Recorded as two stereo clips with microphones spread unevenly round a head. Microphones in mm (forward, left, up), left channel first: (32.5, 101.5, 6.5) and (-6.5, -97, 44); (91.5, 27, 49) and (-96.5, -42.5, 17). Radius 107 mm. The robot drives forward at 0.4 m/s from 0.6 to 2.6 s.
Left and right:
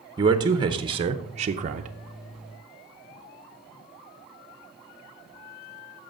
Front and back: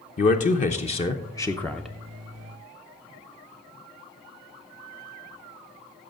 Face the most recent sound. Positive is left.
turn(degrees=-135)